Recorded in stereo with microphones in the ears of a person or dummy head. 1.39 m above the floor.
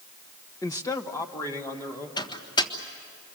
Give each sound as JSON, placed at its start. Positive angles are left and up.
{"t": 0.6, "sound": "a man speaking", "side_deg": 15, "distance_m": 0.6}
{"t": 2.2, "sound": "a microwave", "side_deg": 25, "distance_m": 1.5}